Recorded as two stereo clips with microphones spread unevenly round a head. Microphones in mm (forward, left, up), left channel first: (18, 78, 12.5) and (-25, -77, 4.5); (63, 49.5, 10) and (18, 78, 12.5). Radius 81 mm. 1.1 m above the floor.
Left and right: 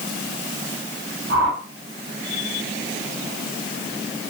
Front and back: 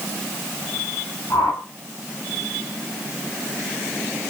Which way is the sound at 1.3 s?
90° right.